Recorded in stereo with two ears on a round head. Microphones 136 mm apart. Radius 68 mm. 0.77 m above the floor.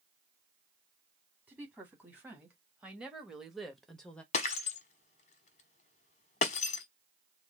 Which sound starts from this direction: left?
Breaking glass, at 4.3 s.